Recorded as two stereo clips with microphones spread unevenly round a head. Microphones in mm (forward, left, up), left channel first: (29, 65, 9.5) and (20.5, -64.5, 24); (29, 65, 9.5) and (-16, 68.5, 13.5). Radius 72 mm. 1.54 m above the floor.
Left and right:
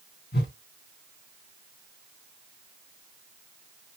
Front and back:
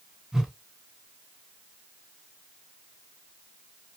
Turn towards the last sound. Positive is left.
turn(degrees=100)